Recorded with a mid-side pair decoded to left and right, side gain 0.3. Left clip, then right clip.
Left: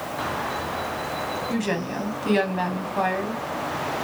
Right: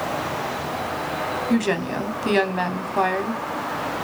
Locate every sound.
1.5 s a woman speaking: 50° right, 0.8 m